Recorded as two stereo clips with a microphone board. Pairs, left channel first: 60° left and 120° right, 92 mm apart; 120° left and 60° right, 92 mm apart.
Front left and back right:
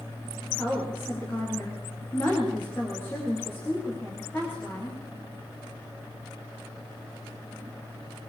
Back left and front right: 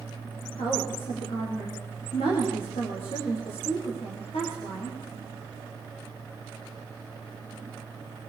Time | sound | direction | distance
0.6 | a woman speaking | 130° left | 9 m